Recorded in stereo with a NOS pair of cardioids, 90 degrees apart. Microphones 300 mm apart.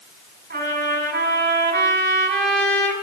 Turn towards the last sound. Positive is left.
turn(degrees=-35)